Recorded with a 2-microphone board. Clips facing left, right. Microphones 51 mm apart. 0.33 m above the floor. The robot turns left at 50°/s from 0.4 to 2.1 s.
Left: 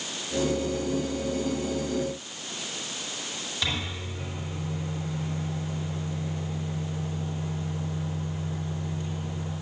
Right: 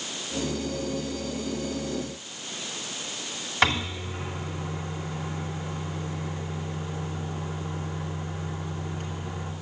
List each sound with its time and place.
3.6 s a microwave: 60° right (ahead or behind), 2 m